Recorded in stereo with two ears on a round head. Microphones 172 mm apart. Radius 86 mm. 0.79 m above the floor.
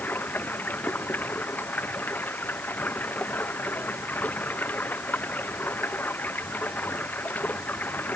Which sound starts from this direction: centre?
Running water, at 0.0 s.